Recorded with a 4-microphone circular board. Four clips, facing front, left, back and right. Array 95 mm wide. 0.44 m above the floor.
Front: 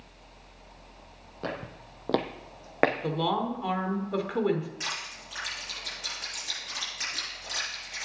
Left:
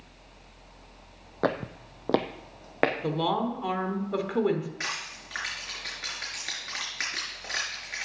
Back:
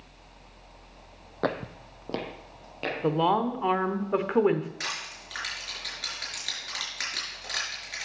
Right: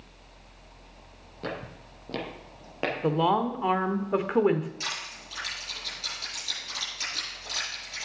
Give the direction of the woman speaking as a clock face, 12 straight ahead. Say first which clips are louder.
Right 3 dB, back 4 dB; 5 o'clock.